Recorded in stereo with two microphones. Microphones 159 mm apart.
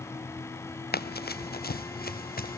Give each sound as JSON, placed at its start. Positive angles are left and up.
{"t": 0.9, "sound": "running footsteps", "side_deg": 85, "distance_m": 0.9}